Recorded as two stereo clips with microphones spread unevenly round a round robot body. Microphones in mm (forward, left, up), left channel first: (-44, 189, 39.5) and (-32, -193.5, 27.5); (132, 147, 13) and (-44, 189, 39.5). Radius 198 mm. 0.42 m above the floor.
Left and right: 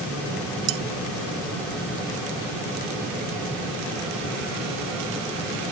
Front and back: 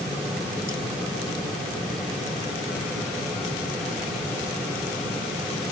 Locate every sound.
0.7 s cutlery clinking: 100° right